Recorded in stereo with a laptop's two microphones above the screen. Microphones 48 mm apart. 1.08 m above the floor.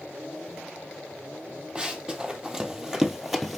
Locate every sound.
1.8 s running footsteps: 20° right (ahead or behind), 1.8 m; by 3.6 s centre (ahead or behind), 1.2 m